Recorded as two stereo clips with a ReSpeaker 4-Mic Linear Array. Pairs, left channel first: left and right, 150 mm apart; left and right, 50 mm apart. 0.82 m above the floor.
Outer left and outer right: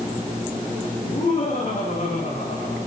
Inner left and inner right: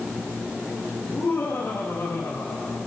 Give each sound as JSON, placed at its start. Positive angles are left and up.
{"t": 1.0, "sound": "laughter", "side_deg": 80, "distance_m": 6.0}